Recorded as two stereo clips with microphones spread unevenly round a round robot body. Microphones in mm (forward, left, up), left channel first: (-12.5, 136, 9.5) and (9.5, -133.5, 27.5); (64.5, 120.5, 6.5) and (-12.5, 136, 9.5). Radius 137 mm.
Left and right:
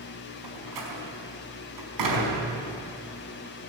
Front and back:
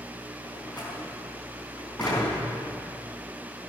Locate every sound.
0.4 s a door slam: 95° right, 5 m